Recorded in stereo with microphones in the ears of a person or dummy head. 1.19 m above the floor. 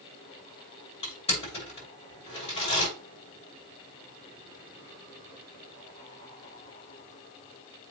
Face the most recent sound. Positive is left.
turn(degrees=35)  # may be behind; listen again after turning